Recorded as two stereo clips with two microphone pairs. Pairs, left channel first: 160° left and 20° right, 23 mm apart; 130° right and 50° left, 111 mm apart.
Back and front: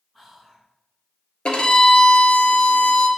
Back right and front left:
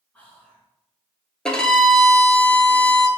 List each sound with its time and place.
0.1 s whispering: 165° right, 1.4 m
1.4 s a violin: 155° left, 0.7 m